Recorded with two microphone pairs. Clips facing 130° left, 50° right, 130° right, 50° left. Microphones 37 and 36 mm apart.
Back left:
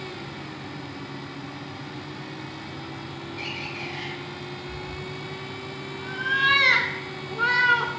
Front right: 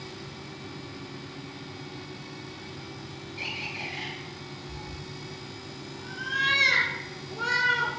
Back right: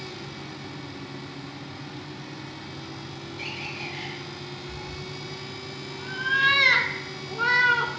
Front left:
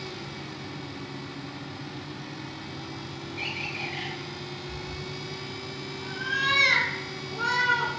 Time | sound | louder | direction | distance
3.4 | a bird | even, front left 2 dB | 35° left | 3.5 m
4.7 | a cat meowing | back left 6 dB, even | 170° left | 0.7 m